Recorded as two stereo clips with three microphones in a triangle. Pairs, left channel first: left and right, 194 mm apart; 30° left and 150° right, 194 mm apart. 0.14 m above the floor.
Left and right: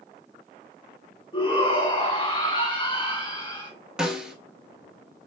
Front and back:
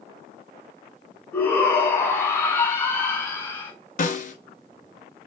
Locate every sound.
1.3 s a shout: 95° left, 1.7 m
4.0 s a snare drum: 5° right, 0.9 m